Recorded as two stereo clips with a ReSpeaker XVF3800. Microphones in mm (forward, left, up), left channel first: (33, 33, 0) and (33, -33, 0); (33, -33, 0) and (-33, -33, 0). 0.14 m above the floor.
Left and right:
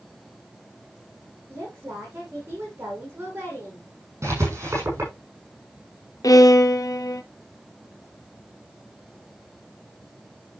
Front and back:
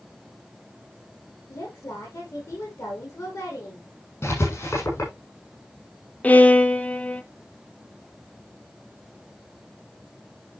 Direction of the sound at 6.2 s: 65° left.